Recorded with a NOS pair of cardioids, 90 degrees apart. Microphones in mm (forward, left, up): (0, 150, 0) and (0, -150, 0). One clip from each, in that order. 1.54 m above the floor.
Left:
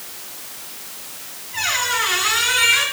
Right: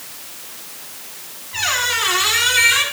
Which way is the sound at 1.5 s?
60° right.